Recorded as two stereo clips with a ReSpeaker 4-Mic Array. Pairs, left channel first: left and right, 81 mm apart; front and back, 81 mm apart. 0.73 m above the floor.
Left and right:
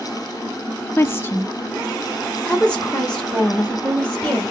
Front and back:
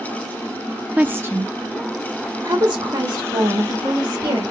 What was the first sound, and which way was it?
A woman speaking, 120° left.